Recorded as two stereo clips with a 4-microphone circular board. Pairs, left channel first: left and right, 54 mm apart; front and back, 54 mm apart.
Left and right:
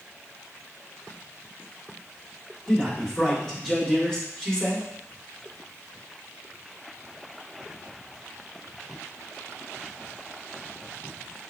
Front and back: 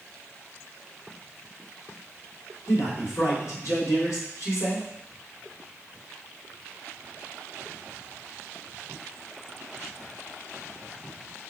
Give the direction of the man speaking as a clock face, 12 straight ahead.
12 o'clock.